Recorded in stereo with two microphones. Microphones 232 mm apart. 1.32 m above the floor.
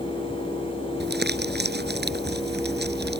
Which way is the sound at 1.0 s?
45° right (ahead or behind).